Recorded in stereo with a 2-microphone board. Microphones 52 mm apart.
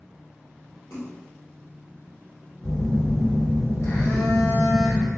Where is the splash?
75° left (ahead or behind), 1.7 m.